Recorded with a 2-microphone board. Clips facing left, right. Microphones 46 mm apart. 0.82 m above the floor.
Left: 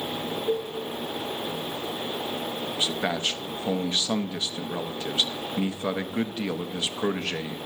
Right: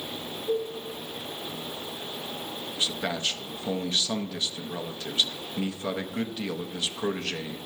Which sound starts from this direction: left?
A man speaking, at 2.8 s.